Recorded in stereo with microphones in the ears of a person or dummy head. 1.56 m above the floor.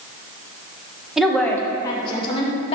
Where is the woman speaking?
5° right (ahead or behind), 1.1 m; by 2.8 s 35° left (ahead or behind), 1.9 m.